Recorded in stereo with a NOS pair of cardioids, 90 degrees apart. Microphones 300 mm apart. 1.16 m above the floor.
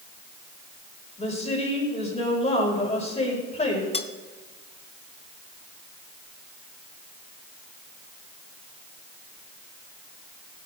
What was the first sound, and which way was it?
A woman speaking, 20° left.